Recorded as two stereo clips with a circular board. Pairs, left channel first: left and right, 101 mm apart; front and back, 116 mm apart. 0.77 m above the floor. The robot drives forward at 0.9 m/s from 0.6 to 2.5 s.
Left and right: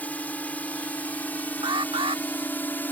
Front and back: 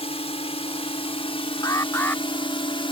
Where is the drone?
20° left; by 2.9 s 25° left.